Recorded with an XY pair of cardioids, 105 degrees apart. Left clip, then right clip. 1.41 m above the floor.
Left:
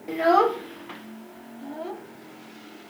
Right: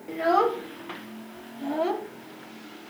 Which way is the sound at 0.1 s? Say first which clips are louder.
Left 3 dB; 35° left.